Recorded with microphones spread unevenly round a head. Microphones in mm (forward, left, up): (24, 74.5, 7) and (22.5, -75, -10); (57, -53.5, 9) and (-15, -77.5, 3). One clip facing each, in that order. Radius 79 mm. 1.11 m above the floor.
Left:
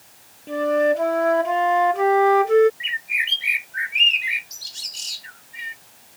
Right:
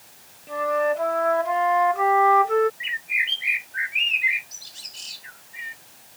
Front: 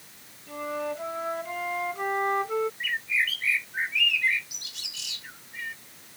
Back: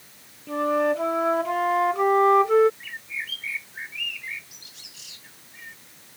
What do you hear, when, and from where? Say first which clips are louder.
0.5 s a flute: left 4 dB, back 10 dB; 145° left
2.8 s a bird: left 1 dB, front 7 dB; 50° left